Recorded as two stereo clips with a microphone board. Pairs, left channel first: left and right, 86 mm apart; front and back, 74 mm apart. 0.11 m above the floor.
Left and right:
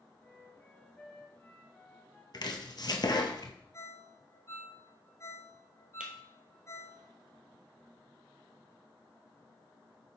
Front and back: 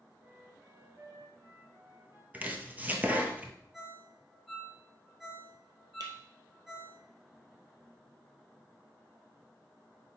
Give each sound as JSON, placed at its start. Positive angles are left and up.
{"t": 0.2, "sound": "a flute", "azimuth_deg": 155, "distance_m": 2.0}
{"t": 2.3, "sound": "chopping", "azimuth_deg": 115, "distance_m": 1.0}
{"t": 3.7, "sound": "a ringtone", "azimuth_deg": 100, "distance_m": 1.3}
{"t": 6.0, "sound": "breaking glass", "azimuth_deg": -165, "distance_m": 1.5}